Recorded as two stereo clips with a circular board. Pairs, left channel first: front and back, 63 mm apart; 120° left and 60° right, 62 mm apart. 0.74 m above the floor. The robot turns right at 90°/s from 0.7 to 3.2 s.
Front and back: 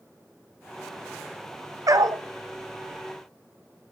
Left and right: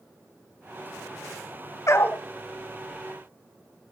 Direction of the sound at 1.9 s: 155° left.